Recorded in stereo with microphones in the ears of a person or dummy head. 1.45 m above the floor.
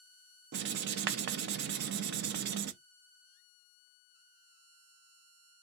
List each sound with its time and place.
0.5 s writing: 60° right (ahead or behind), 0.7 m